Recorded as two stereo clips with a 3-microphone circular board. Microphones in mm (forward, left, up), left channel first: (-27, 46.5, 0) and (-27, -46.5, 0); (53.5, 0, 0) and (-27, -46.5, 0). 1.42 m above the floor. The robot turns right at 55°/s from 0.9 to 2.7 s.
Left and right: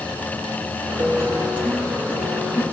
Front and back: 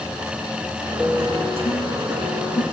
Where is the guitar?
50° right, 2 m; by 2.6 s 40° left, 2 m.